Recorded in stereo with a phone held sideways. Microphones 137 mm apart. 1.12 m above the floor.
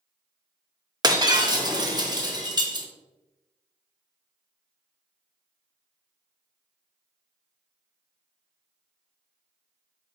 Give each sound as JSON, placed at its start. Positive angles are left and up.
{"t": 1.0, "sound": "breaking glass", "side_deg": -30, "distance_m": 0.7}